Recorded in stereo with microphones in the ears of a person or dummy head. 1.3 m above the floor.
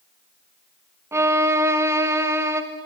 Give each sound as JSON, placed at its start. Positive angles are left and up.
{"t": 1.1, "sound": "a violin", "side_deg": -15, "distance_m": 1.1}